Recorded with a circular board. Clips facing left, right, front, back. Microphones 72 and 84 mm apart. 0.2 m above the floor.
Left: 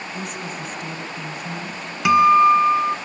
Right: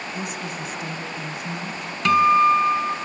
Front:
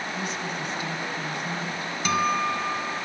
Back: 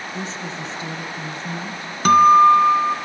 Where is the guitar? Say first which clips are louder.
Left 3 dB, back 14 dB; 165° left, 1.5 m.